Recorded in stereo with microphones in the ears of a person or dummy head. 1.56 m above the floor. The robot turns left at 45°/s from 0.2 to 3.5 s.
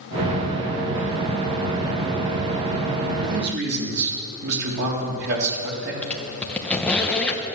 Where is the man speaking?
45° right (ahead or behind), 3.5 m; by 5.9 s 60° right (ahead or behind), 3.5 m.